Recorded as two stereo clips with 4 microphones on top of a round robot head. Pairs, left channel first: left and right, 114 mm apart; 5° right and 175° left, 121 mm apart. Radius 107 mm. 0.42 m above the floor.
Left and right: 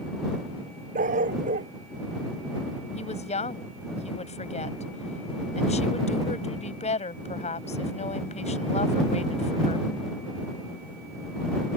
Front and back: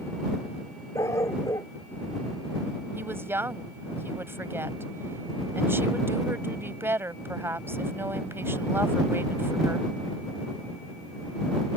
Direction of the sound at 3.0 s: 105° left.